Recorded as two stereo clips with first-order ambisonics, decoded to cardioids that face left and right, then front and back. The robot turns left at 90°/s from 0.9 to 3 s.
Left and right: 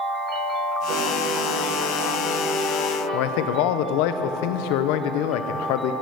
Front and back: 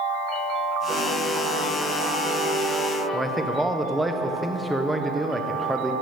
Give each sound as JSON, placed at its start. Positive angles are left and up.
{"t": 0.9, "sound": "a piano", "azimuth_deg": -105, "distance_m": 4.0}
{"t": 3.1, "sound": "a man speaking", "azimuth_deg": 100, "distance_m": 0.6}